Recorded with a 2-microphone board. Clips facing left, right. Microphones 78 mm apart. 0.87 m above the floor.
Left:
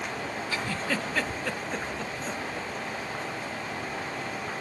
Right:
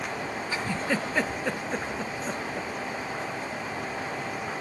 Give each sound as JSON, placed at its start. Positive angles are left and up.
{"t": 0.5, "sound": "a giggle", "side_deg": -20, "distance_m": 0.7}